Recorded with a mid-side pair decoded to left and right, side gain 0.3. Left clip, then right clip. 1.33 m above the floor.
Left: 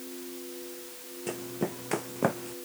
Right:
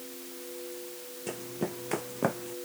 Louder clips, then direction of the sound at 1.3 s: Left 2 dB; 20° left.